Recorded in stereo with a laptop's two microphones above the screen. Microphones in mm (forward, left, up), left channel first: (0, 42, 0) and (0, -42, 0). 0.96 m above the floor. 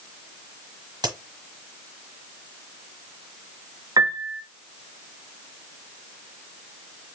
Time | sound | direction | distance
1.0 | a crack | 60° right (ahead or behind) | 1.4 m
4.0 | a piano | 50° right (ahead or behind) | 0.7 m